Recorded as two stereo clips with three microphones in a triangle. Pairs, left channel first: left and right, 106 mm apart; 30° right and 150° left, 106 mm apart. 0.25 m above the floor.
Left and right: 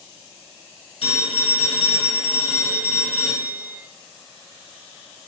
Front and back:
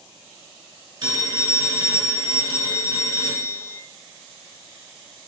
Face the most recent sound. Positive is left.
turn(degrees=100)